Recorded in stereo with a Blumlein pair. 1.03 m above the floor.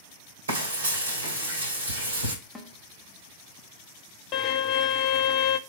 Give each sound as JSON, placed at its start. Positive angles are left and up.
{"t": 0.5, "sound": "frying", "azimuth_deg": -70, "distance_m": 2.5}
{"t": 2.5, "sound": "a snare drum", "azimuth_deg": 0, "distance_m": 1.1}
{"t": 4.3, "sound": "a violin", "azimuth_deg": 30, "distance_m": 0.6}